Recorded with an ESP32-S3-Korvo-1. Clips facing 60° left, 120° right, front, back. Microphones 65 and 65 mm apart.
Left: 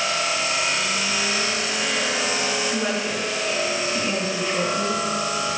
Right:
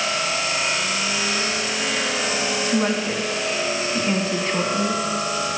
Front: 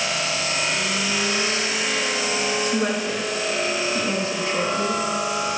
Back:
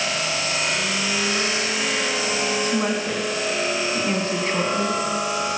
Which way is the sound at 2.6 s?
140° right.